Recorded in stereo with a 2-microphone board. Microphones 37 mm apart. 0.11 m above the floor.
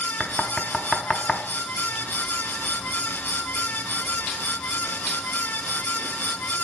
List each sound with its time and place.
0.2 s knocking: 20° left (ahead or behind), 0.9 m